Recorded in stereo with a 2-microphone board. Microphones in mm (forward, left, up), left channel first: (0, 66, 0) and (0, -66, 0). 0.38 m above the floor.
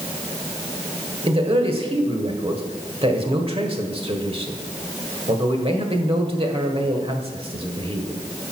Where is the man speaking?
45° right (ahead or behind), 1.4 m.